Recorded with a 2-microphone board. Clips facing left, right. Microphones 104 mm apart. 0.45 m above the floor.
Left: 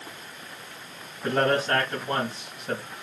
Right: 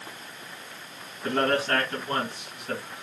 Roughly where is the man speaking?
Left.